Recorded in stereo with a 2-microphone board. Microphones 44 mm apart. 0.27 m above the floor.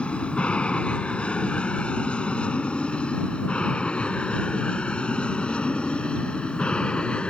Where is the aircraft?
25° left (ahead or behind).